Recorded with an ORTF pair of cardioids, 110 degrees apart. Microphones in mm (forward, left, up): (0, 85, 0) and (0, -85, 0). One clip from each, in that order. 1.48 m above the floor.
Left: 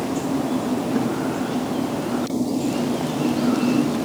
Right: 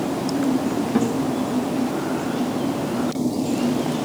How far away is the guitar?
About 1.6 m.